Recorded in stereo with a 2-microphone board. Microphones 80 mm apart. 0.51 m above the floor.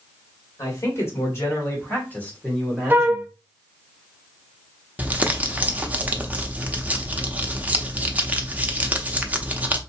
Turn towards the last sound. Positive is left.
turn(degrees=-20)  # may be behind; listen again after turning